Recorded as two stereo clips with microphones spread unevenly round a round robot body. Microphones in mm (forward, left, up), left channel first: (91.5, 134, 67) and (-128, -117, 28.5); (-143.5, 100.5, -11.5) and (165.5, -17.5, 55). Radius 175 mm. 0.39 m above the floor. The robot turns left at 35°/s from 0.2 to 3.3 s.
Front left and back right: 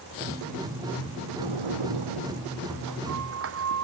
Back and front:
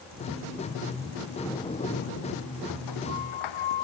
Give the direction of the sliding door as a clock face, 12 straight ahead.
4 o'clock.